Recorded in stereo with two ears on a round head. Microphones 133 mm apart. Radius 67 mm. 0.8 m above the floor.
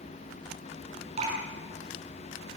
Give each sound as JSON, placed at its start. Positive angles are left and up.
{"t": 1.2, "sound": "dripping", "side_deg": -45, "distance_m": 7.5}